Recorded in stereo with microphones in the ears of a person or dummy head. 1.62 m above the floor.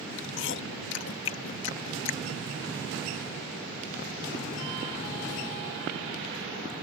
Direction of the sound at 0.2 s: 70° left (ahead or behind).